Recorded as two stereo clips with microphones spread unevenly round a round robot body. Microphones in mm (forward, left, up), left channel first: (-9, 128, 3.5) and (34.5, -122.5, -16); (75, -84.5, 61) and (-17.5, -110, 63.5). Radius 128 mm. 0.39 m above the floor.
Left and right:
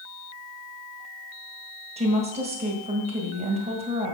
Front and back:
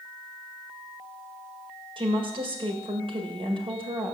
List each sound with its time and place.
2.0 s a woman speaking: 145° right, 1.9 m